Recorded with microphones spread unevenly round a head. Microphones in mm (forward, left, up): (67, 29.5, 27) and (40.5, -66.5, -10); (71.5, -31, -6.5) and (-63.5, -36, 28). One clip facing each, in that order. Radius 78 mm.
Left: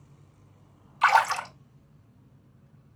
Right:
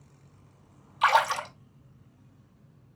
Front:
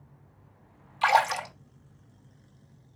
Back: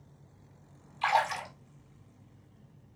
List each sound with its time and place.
1.0 s a splash: 20° right, 1.8 m